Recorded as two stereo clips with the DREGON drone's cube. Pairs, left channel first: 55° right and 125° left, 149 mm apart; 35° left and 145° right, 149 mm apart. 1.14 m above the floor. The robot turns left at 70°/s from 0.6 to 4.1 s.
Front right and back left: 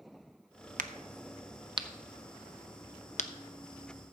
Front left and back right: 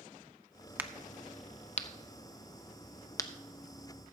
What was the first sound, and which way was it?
A crack, 140° left.